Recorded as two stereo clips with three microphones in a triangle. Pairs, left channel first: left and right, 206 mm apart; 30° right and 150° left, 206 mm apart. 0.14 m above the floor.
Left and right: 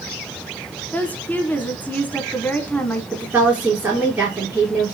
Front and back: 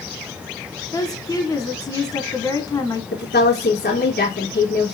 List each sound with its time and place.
0.9 s a woman speaking: 20° left, 1.3 m
3.1 s a woman speaking: 10° right, 3 m